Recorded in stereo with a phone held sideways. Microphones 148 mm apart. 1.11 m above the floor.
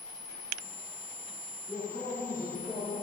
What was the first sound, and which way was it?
A man speaking, 15° left (ahead or behind).